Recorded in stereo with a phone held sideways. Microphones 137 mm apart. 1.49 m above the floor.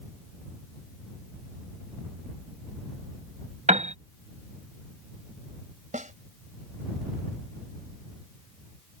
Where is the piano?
55° right (ahead or behind).